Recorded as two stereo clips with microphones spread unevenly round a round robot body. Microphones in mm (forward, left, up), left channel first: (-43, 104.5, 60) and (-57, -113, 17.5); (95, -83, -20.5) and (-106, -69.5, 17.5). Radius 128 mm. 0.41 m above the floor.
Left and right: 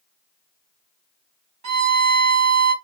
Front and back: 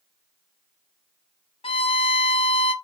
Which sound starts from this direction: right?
A violin, at 1.6 s.